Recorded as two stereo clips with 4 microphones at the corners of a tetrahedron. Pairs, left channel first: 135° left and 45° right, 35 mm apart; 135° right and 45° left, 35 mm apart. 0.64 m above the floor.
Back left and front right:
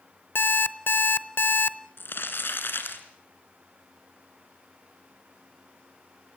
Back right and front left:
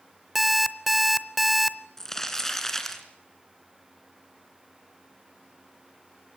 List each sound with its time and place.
0.3 s an alarm clock: 135° left, 0.7 m
2.0 s crumpling: 145° left, 2.5 m